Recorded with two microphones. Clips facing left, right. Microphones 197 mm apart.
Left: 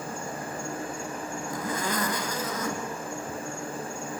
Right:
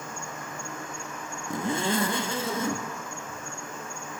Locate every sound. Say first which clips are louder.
0.0 s an insect: left 4 dB; 35° left (ahead or behind), 1.8 m
1.5 s a zipper: right 5 dB; 25° right (ahead or behind), 1.8 m